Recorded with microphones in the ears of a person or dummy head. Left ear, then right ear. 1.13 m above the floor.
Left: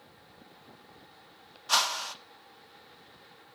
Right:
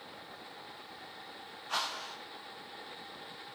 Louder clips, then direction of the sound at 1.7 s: Left 8 dB; 80° left.